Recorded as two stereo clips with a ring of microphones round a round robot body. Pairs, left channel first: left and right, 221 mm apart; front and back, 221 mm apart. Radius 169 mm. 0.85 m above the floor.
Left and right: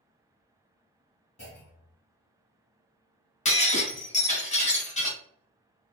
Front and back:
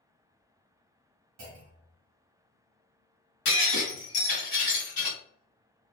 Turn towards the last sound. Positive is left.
turn(degrees=30)